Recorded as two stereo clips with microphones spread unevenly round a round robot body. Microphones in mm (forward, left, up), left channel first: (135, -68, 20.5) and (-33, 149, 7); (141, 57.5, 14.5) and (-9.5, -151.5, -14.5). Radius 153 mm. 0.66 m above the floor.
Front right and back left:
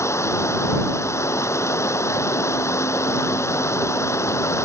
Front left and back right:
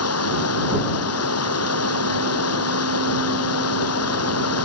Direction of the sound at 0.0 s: 30° left.